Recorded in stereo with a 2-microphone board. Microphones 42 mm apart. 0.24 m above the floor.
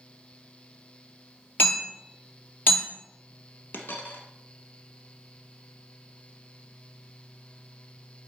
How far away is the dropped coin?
About 1.1 m.